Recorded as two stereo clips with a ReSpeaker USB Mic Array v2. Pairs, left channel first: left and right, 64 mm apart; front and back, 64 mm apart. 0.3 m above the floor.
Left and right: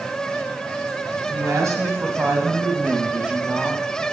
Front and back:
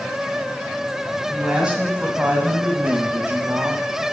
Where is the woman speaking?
105° right, 2.0 m; by 3.8 s 170° right, 1.5 m.